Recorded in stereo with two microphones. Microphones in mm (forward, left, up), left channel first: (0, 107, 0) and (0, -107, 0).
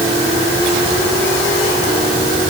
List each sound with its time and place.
Only background noise.